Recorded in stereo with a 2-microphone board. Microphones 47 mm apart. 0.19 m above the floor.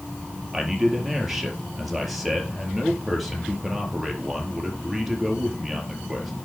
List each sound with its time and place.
0.5 s a man speaking: 5° right (ahead or behind), 4.5 m